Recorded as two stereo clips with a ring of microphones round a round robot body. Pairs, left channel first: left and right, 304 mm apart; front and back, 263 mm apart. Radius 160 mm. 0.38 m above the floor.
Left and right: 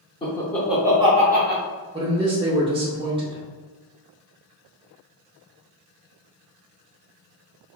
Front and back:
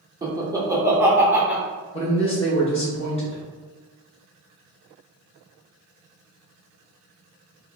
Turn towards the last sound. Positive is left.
turn(degrees=-35)